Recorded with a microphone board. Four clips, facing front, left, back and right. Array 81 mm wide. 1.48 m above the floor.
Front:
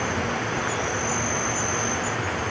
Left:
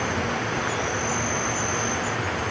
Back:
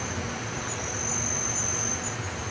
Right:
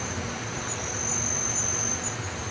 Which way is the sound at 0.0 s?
40° left.